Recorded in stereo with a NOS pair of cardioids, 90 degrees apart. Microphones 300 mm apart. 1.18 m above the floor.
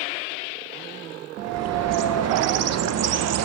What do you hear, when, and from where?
1.4 s a bird: 60° right, 0.7 m